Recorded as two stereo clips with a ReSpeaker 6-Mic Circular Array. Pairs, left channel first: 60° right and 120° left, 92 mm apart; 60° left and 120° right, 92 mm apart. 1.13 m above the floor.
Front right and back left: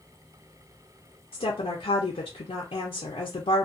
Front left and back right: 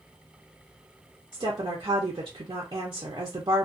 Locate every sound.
1.3 s a woman speaking: 75° right, 0.6 m